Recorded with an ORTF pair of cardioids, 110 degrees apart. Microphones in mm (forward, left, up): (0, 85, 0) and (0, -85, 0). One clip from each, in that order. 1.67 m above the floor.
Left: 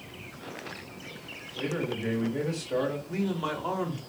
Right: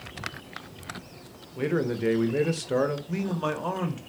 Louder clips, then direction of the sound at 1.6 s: Right 5 dB; 35° right.